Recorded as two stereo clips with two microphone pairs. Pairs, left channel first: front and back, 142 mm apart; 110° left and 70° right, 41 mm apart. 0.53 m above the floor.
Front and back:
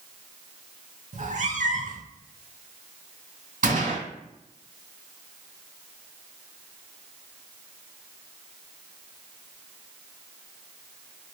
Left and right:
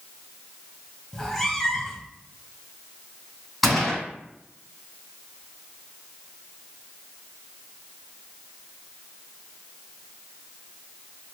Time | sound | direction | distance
1.1 | a cat meowing | 165° right | 0.5 m
3.6 | a gunshot | 160° right | 2 m